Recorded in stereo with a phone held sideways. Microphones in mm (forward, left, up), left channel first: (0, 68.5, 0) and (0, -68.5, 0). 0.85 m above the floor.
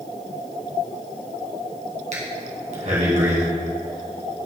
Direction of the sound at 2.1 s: 65° right (ahead or behind).